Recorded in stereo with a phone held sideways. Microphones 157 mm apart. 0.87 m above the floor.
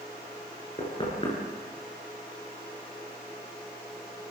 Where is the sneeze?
No sneeze in this recording.